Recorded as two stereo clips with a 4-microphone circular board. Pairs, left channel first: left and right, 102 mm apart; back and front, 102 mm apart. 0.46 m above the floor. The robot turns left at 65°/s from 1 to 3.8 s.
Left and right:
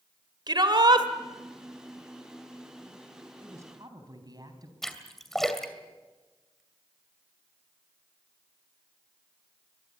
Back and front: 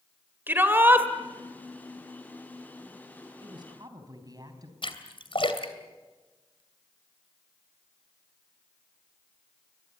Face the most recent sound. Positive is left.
turn(degrees=175)